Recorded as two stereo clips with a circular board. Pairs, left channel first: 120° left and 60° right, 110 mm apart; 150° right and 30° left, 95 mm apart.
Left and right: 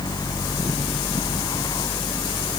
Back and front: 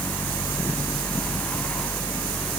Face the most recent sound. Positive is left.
No sound to turn to.